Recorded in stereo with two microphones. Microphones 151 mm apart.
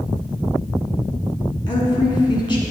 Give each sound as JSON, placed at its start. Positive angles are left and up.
{"t": 1.7, "sound": "a woman speaking", "side_deg": 35, "distance_m": 1.3}